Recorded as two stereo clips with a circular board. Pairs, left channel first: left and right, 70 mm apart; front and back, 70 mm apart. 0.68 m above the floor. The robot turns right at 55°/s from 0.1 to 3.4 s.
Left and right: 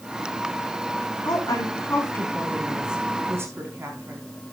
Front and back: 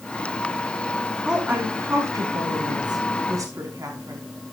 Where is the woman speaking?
100° left, 5 m; by 4.2 s 145° right, 5 m.